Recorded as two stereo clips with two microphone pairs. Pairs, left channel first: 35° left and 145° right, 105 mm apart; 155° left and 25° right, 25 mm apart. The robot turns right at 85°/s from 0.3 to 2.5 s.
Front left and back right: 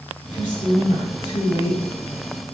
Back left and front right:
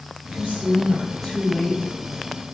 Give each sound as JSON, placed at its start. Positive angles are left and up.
{"t": 0.3, "sound": "a woman speaking", "azimuth_deg": -25, "distance_m": 9.5}